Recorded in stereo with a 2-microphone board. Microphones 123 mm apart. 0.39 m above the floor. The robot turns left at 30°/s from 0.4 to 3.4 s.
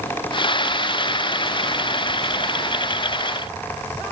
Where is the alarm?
I don't hear an alarm.